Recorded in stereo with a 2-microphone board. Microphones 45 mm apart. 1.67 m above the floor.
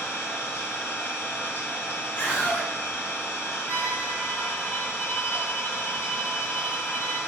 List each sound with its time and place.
0.0 s an engine running: 50° left (ahead or behind), 1.3 m
2.2 s a scream: 40° left (ahead or behind), 1.4 m
3.7 s a violin: 15° left (ahead or behind), 2 m